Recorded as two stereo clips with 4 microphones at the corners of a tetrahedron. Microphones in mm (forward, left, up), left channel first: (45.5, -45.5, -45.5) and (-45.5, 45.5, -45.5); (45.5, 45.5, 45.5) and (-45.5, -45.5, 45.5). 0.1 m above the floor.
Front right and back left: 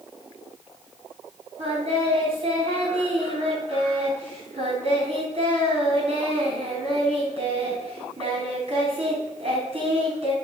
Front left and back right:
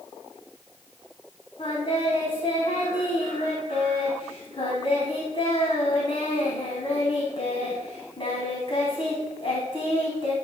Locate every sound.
1.6 s singing: 90° left, 4 m